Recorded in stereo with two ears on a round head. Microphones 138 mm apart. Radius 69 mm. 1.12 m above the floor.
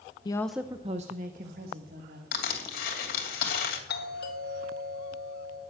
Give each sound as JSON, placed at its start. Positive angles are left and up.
{"t": 0.2, "sound": "a woman speaking", "side_deg": 30, "distance_m": 0.6}
{"t": 2.3, "sound": "crushing", "side_deg": 70, "distance_m": 2.5}
{"t": 3.9, "sound": "a doorbell", "side_deg": 70, "distance_m": 2.5}